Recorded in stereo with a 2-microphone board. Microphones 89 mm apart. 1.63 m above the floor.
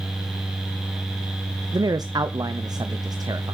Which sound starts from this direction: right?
A man speaking, at 1.7 s.